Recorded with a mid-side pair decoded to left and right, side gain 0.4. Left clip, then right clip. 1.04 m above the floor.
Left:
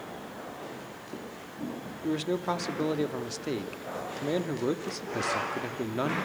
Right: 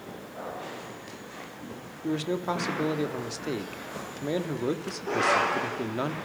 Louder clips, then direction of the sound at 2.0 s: Even; 5° right.